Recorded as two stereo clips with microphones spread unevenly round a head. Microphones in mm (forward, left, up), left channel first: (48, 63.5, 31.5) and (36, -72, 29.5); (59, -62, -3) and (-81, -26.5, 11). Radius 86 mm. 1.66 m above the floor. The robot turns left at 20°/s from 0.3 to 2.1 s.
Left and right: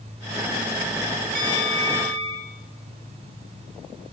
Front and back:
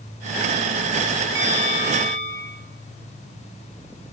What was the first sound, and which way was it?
A bell, 100° left.